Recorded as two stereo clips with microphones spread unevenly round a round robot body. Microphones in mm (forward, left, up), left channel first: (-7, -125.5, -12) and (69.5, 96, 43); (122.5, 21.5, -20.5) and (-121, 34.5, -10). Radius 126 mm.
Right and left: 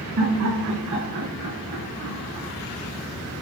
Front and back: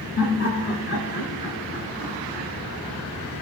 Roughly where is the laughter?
Ahead left.